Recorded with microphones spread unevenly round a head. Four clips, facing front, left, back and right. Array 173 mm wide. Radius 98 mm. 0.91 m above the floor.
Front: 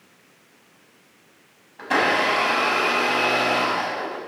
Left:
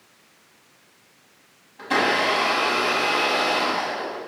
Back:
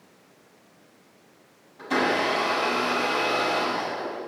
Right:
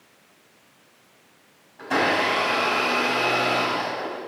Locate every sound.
1.8 s a blender: 5° left, 6.5 m